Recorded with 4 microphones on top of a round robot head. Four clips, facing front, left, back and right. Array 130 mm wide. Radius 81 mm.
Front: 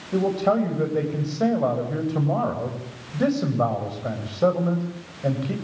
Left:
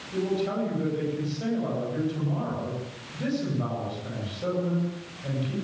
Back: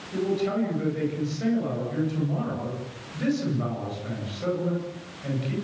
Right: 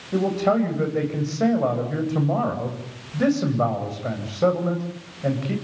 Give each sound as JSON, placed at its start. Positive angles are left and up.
{"t": 0.1, "sound": "a man speaking", "azimuth_deg": -45, "distance_m": 9.0}